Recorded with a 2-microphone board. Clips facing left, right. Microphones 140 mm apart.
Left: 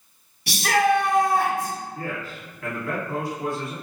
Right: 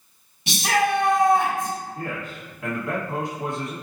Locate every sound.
0.5 s a shout: 20° right (ahead or behind), 1.3 m
1.9 s a man speaking: 20° right (ahead or behind), 1.5 m